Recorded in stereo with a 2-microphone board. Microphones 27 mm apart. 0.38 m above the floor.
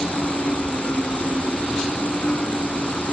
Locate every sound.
0.0 s an insect: 60° left (ahead or behind)